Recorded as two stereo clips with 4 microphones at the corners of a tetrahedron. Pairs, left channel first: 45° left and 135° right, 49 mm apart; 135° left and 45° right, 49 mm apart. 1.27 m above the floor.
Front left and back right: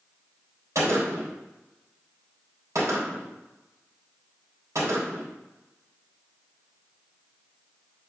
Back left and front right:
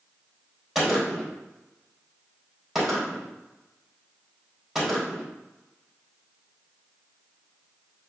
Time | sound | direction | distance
0.8 | a gunshot | 130° right | 3.5 m